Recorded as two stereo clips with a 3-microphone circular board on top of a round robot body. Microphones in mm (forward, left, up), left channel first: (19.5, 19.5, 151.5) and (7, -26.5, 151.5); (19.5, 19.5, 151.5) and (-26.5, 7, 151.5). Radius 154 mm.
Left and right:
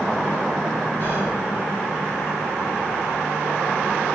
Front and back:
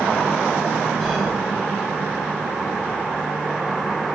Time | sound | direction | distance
1.0 | whispering | 115° left | 1.7 m